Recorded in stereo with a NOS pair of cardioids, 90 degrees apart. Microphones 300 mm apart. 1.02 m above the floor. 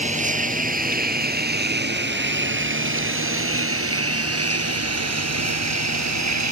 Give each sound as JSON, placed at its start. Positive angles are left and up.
{"t": 0.0, "sound": "a lawn mower", "azimuth_deg": -25}